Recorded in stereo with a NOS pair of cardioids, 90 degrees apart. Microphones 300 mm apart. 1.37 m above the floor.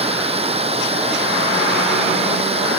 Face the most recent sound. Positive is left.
turn(degrees=-20)